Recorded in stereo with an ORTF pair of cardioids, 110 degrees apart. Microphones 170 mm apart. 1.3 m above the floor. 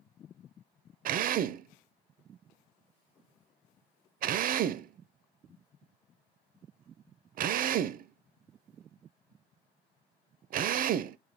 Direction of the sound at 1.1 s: 55° right.